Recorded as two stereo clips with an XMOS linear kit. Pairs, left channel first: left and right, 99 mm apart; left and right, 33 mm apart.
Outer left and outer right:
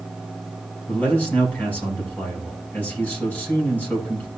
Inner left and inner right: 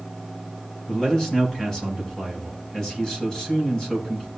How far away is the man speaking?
About 5 m.